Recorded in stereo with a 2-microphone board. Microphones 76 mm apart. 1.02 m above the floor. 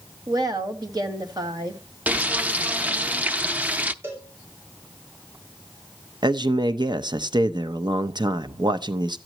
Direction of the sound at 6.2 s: 70° right (ahead or behind).